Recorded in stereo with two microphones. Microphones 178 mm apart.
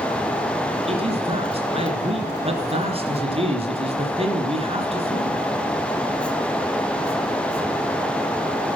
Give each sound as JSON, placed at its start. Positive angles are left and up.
{"t": 0.9, "sound": "a man speaking", "side_deg": -35, "distance_m": 3.0}